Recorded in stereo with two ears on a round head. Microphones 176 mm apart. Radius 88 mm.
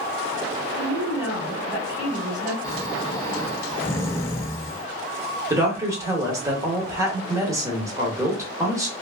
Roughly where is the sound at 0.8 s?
Centre.